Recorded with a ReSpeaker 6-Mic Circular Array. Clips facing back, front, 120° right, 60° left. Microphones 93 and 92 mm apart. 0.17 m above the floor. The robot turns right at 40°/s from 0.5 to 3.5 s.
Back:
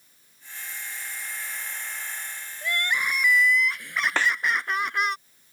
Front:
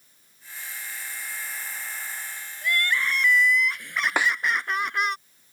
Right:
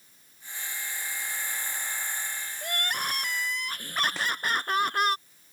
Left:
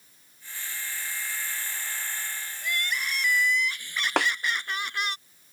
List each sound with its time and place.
2.6 s crying: 125° right; by 5.2 s 90° right
4.2 s a snare drum: 75° left